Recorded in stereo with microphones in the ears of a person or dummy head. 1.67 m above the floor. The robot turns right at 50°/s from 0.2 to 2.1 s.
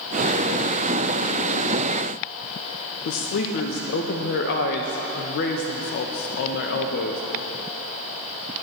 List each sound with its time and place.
3.0 s a woman speaking: 60° left (ahead or behind), 0.7 m